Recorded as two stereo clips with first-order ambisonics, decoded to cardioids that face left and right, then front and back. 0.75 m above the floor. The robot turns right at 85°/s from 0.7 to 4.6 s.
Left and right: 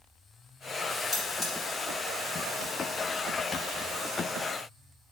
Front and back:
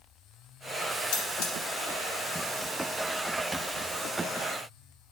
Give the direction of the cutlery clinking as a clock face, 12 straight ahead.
12 o'clock.